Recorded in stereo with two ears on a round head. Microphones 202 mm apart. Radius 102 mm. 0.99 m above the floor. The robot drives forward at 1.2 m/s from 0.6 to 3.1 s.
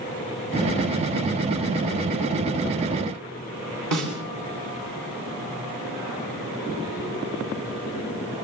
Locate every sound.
3.9 s a snare drum: 65° right (ahead or behind), 9 m